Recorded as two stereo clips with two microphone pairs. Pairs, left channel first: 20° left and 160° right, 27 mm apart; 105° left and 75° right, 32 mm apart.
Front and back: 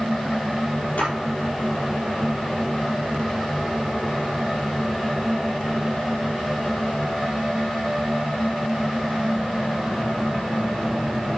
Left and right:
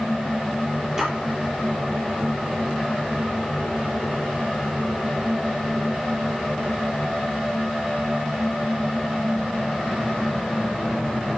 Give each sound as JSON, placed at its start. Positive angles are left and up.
{"t": 1.0, "sound": "a splash", "azimuth_deg": -5, "distance_m": 4.0}